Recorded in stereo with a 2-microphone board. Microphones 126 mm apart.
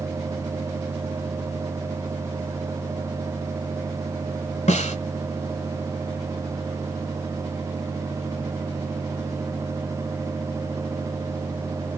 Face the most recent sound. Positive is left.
turn(degrees=60)  # may be behind; listen again after turning